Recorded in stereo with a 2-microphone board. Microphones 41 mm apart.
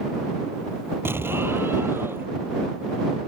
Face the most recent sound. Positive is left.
turn(degrees=-70)  # may be behind; listen again after turning